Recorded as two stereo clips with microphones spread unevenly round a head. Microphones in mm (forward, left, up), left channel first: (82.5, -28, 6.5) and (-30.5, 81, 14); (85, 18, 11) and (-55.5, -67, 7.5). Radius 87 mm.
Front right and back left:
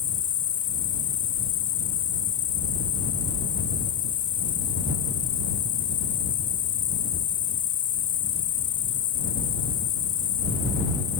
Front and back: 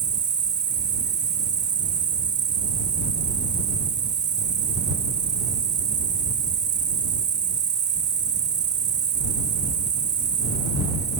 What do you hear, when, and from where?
0.0 s an insect: 105° right